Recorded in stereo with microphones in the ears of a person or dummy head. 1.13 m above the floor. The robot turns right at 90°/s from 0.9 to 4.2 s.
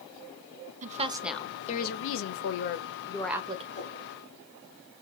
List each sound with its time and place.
0.8 s a woman speaking: 35° right, 0.7 m; by 3.6 s 150° right, 0.7 m
3.7 s a whoosh: 35° left (ahead or behind), 2 m; by 4.0 s 15° left (ahead or behind), 2 m